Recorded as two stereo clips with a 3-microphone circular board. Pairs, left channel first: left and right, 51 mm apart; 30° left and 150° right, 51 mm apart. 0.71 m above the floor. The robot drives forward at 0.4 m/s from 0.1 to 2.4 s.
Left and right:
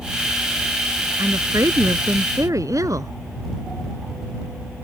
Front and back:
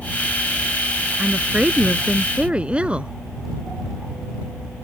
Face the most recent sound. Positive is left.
turn(degrees=-80)